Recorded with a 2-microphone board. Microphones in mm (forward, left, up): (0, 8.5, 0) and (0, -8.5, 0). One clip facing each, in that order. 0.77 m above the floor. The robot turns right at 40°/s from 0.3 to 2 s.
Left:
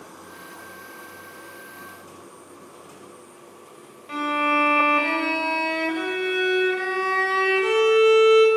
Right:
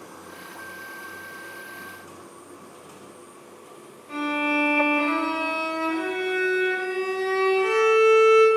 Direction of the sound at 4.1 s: 35° left (ahead or behind).